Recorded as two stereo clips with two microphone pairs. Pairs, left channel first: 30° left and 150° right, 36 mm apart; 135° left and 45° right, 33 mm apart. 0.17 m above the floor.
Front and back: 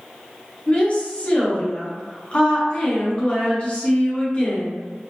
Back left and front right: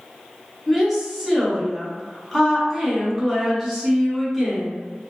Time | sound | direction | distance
0.7 | a woman speaking | 40° left | 1.9 m